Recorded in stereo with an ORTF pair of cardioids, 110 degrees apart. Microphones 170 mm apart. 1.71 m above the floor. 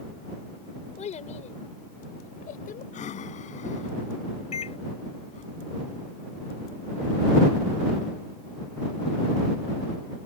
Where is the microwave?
40° left.